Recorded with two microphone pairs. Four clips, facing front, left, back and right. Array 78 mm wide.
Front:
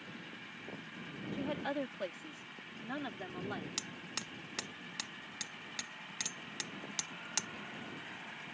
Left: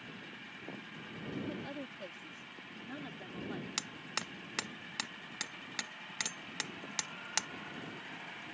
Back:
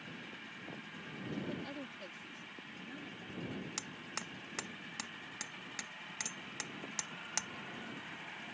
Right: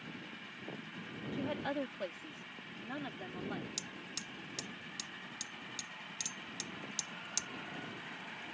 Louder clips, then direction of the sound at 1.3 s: Right 5 dB, front 6 dB; 45° right.